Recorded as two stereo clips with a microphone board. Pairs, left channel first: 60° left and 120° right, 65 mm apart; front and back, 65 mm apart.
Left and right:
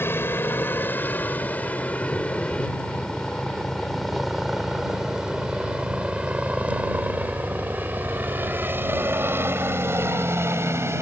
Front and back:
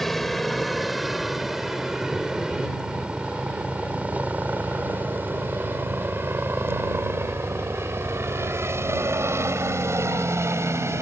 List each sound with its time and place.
0.0 s a helicopter: 85° left; by 11.0 s 150° right